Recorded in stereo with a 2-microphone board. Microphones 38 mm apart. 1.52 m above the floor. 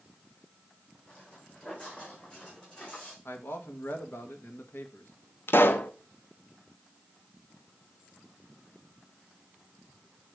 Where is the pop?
75° left (ahead or behind), 0.7 m.